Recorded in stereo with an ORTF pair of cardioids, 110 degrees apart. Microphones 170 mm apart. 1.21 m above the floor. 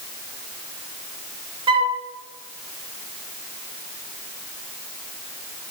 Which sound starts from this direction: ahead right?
A flute, at 1.7 s.